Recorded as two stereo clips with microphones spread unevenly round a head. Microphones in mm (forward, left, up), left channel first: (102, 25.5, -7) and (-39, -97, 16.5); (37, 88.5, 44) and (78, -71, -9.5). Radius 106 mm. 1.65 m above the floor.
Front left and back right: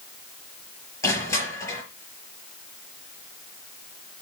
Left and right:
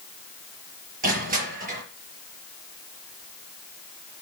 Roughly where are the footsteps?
No footsteps in this recording.